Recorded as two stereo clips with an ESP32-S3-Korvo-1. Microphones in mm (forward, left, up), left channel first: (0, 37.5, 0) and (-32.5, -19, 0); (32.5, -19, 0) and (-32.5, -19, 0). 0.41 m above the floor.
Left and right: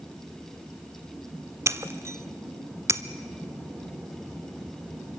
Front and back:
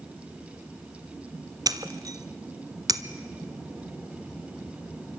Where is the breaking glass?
165° right, 0.8 m.